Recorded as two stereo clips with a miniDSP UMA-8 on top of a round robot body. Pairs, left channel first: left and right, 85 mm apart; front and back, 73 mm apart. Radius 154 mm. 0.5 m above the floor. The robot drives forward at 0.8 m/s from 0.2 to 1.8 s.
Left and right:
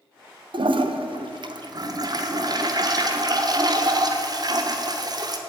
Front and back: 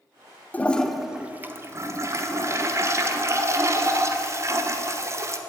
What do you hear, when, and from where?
0.5 s a toilet flushing: 70° right, 0.9 m; by 5.4 s 130° right, 1.1 m